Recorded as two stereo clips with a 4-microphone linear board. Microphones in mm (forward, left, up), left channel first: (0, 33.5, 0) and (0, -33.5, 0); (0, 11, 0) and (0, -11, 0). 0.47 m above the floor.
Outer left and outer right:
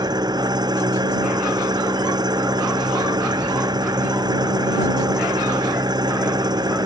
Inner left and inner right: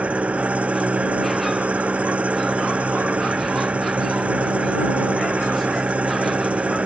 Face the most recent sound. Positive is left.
turn(degrees=-70)  # may be behind; listen again after turning